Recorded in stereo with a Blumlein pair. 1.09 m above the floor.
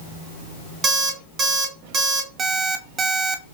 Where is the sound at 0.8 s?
25° right, 1.5 m.